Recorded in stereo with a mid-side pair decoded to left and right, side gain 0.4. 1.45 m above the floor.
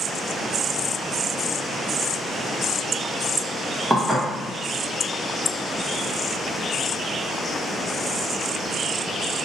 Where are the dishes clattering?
15° right, 1.3 m.